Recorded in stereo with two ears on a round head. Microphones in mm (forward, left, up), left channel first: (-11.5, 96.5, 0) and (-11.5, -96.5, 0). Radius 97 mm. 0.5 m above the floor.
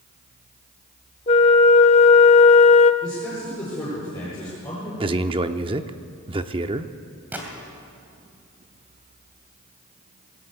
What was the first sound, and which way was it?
A flute, 30° left (ahead or behind).